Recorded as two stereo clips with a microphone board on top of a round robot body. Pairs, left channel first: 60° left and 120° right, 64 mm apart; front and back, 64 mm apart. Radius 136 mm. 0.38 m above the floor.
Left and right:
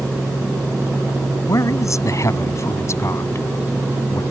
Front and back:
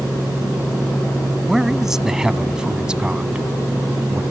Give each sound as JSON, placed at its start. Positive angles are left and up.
{"t": 1.5, "sound": "a man speaking", "azimuth_deg": 95}